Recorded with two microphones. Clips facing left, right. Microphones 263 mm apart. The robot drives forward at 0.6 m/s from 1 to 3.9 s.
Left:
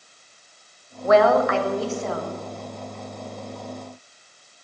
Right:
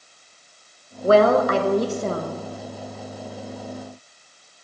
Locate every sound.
1.0 s a woman speaking: 35° right (ahead or behind), 0.9 m; by 2.4 s 40° right (ahead or behind), 0.8 m